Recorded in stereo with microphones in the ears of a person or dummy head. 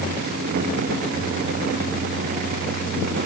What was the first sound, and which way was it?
Only background noise.